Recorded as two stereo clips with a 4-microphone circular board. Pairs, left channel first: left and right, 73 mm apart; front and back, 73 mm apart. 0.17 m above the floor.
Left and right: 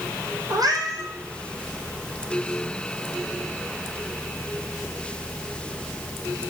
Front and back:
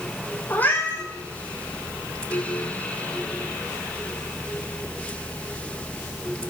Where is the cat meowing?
65° right, 2 m.